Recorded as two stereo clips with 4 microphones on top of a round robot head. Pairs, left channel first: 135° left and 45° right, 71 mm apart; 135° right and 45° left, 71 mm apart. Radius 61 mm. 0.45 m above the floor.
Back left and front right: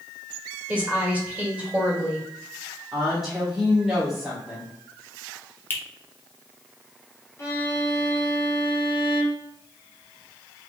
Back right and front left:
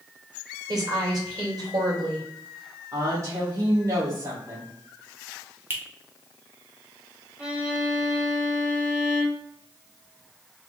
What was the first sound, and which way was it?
A woman speaking, 25° left.